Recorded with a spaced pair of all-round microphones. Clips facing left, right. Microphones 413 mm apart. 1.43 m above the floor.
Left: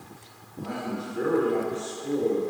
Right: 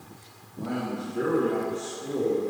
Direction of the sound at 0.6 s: 80° right.